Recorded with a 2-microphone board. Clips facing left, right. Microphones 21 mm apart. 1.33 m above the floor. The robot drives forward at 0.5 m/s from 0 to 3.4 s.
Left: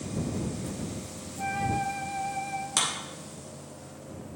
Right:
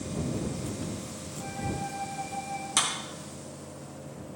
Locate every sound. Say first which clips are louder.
1.4 s a flute: left 6 dB; 55° left (ahead or behind), 0.7 m; by 2.7 s 40° left (ahead or behind), 0.9 m
2.8 s a clap: right 1 dB; 10° left (ahead or behind), 2.5 m